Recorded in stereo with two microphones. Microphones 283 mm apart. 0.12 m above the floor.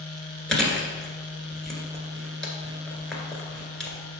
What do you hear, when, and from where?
0.5 s chewing: centre (ahead or behind), 1.6 m